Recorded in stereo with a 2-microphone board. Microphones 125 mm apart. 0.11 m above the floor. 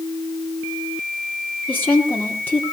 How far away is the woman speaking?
About 3.5 m.